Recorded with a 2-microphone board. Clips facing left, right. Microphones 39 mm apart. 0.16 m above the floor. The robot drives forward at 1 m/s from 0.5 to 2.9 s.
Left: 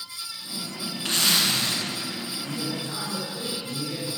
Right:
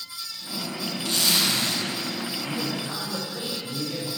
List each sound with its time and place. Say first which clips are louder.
1.1 s a zipper: left 1 dB; 50° left (ahead or behind), 1.0 m; by 1.8 s 35° left (ahead or behind), 1.3 m
2.4 s a man speaking: even; 40° right (ahead or behind), 2 m; by 4.1 s 45° right (ahead or behind), 2.0 m